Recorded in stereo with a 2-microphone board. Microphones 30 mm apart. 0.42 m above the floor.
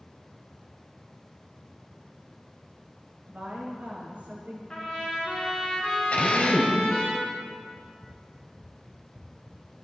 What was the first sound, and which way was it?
A woman speaking, 65° right (ahead or behind).